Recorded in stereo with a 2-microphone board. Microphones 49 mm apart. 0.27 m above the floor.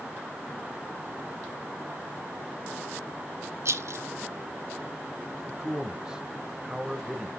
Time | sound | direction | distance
3.6 | a rattle | 65° right (ahead or behind) | 0.6 m
5.5 | a man speaking | 15° right (ahead or behind) | 1.0 m